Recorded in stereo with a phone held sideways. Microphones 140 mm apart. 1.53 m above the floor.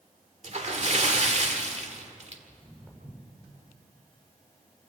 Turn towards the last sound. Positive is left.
turn(degrees=-15)  # may be behind; listen again after turning